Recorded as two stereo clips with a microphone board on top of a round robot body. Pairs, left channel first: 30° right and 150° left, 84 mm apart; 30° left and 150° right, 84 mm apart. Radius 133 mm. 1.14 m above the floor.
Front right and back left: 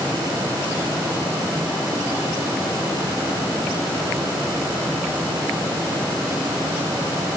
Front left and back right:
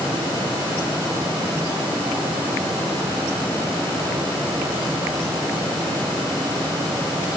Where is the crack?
I don't hear a crack.